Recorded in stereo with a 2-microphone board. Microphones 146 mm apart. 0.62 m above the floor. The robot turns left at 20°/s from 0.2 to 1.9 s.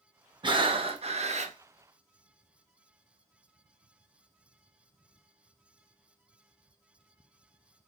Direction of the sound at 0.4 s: 35° right (ahead or behind).